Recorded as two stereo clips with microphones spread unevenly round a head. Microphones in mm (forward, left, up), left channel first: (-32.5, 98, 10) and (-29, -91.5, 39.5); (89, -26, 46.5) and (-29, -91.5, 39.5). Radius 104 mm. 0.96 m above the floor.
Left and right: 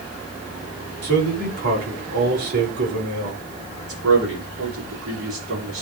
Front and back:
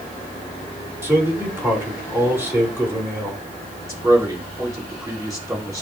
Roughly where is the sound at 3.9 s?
Right.